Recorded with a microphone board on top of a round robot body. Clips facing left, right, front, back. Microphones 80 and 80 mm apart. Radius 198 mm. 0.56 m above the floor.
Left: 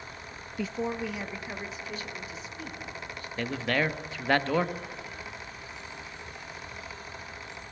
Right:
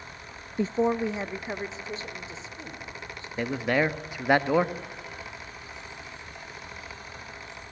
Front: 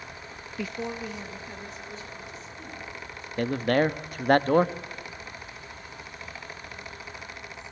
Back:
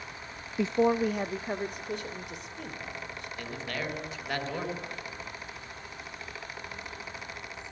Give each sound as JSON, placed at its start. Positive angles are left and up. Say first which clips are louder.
{"t": 0.6, "sound": "a woman speaking", "louder": "right 7 dB, back 9 dB", "azimuth_deg": -120, "distance_m": 0.6}
{"t": 3.4, "sound": "a man speaking", "louder": "right 3 dB, front 14 dB", "azimuth_deg": -20, "distance_m": 1.4}